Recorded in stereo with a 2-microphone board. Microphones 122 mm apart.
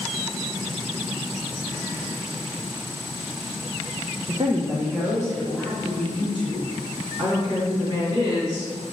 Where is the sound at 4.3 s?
50° right (ahead or behind), 0.7 m; by 6.7 s 15° right (ahead or behind), 3.5 m.